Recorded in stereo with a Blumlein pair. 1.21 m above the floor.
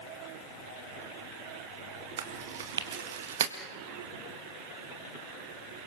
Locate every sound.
2.2 s chewing: 60° right, 2 m